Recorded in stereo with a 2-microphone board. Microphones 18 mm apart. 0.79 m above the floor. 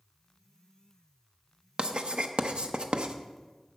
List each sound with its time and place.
1.8 s writing: 50° right (ahead or behind), 0.7 m